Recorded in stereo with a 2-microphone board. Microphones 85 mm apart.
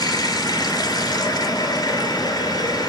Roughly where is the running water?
Left.